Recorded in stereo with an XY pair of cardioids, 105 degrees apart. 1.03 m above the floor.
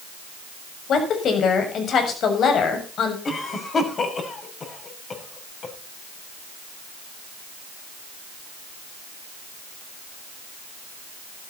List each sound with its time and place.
0.9 s a woman speaking: 60° left, 7 m
3.2 s a cough: 40° left, 6.5 m